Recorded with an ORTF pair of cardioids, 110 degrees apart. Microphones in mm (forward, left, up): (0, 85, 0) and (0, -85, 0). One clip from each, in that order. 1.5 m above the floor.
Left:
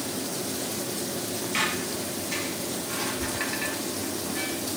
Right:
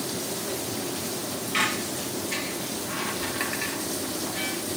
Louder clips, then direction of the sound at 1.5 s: Right 2 dB; 10° right.